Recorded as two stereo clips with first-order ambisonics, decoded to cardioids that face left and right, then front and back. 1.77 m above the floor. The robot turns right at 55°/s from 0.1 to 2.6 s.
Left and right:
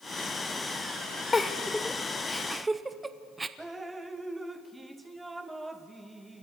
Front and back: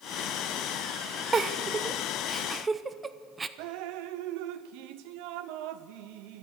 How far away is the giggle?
About 0.6 m.